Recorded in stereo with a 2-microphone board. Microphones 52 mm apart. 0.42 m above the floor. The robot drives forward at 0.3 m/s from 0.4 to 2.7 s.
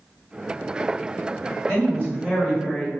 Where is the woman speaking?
20° left (ahead or behind), 1.6 m.